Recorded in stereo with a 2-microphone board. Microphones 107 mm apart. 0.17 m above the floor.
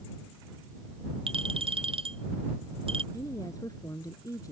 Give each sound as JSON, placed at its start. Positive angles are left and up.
{"t": 1.3, "sound": "a clink", "side_deg": -60}
{"t": 3.1, "sound": "a woman speaking", "side_deg": 35}